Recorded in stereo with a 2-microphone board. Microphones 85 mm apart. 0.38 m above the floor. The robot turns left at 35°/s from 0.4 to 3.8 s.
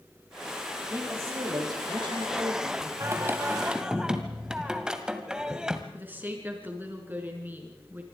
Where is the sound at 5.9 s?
20° right (ahead or behind), 5 m.